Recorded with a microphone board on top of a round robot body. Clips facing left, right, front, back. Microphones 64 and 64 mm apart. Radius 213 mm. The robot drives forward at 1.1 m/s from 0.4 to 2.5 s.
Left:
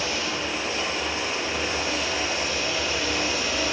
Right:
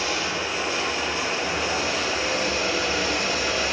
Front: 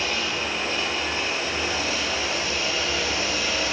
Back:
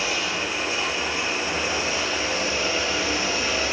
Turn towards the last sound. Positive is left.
turn(degrees=-120)